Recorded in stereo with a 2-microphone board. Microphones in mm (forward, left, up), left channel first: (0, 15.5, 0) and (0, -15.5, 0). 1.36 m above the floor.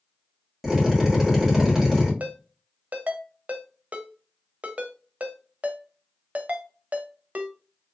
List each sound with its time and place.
0.6 s a drill: 10° right (ahead or behind), 1.5 m
2.2 s a ringtone: 50° right (ahead or behind), 0.6 m